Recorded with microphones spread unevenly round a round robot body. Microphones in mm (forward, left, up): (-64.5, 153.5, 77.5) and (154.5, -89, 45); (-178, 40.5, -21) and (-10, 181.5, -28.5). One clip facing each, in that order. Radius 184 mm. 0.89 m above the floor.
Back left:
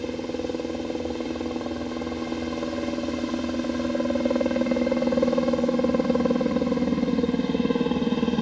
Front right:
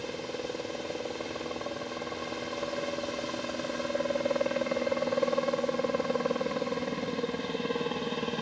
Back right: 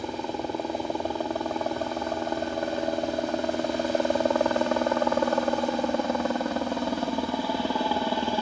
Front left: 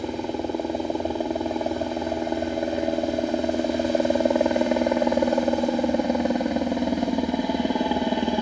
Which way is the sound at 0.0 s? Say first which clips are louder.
Back left 8 dB, front left 4 dB; 110° left.